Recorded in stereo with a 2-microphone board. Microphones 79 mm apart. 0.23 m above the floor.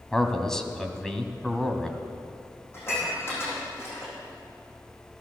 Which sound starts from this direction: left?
Dishes clattering, at 2.7 s.